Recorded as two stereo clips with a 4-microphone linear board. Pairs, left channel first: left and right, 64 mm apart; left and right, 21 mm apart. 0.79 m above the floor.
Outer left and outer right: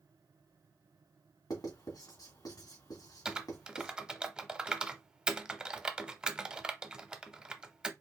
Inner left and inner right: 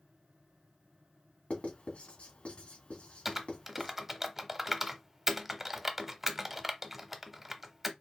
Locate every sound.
1.5 s writing: 70° left (ahead or behind), 2 m
3.2 s typing on a keyboard: 10° right (ahead or behind), 0.7 m